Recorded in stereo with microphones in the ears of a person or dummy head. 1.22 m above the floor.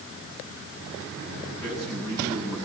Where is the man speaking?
20° left (ahead or behind), 9.5 m.